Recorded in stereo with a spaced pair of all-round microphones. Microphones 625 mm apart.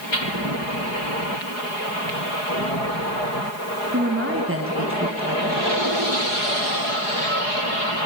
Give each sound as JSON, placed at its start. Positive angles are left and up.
{"t": 3.9, "sound": "a woman speaking", "side_deg": -20, "distance_m": 1.4}